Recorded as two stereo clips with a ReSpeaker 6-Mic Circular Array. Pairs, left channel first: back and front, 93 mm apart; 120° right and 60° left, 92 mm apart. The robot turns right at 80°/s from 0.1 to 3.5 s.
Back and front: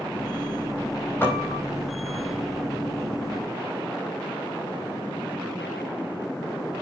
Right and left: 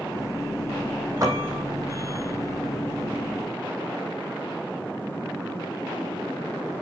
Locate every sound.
1.2 s a piano: 115° left, 4.5 m; by 1.7 s 150° left, 4.5 m